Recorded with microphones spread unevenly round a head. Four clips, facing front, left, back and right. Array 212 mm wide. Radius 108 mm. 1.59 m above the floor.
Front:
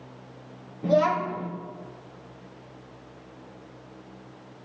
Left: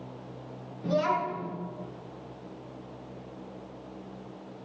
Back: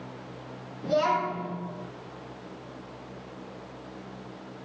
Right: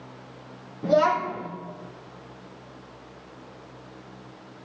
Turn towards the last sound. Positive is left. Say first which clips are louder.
# right 6 dB, front 3 dB
turn(degrees=-80)